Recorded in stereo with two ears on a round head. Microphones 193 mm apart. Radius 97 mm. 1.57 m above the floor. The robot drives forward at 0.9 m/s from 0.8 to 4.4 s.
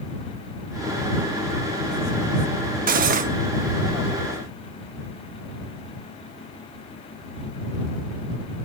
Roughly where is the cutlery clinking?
Right.